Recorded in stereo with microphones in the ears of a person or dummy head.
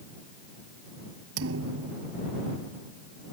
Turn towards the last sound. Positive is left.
turn(degrees=-80)